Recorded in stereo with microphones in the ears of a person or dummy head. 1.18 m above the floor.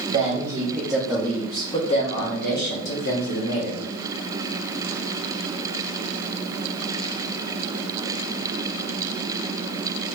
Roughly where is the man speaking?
Right.